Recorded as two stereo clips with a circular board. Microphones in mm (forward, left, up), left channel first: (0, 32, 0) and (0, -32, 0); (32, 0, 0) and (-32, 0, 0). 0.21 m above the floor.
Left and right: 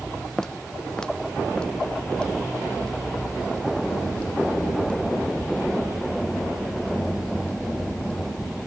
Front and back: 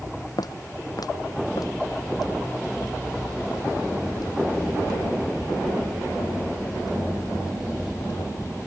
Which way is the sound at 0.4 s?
10° left.